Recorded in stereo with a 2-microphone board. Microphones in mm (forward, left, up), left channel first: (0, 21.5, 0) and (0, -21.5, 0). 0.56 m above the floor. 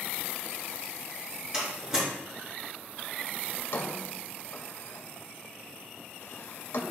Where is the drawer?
60° left (ahead or behind), 1.5 m.